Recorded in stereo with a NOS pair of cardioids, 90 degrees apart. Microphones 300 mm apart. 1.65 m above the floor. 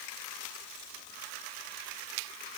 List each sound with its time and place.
Only background noise.